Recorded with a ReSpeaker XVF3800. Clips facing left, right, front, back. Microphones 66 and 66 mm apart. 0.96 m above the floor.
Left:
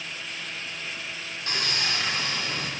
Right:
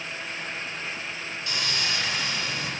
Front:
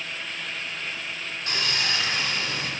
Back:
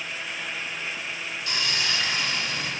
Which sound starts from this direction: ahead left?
Sawing, at 1.5 s.